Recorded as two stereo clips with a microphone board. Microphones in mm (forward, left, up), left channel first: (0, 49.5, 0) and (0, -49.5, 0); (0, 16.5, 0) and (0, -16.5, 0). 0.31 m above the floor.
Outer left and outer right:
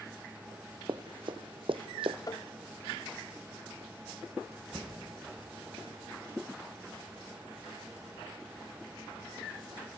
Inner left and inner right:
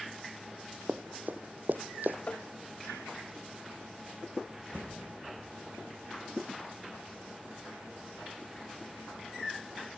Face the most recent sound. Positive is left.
turn(degrees=-35)  # may be behind; listen again after turning